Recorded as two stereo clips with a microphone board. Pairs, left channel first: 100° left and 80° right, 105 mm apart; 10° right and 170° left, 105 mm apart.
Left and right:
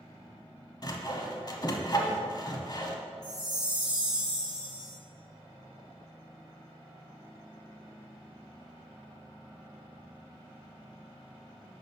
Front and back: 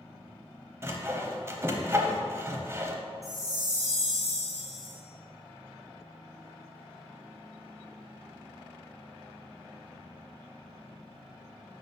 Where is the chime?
50° left, 2 m.